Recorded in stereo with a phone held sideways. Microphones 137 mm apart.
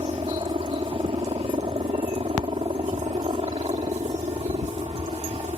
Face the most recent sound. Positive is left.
turn(degrees=-45)  # may be behind; listen again after turning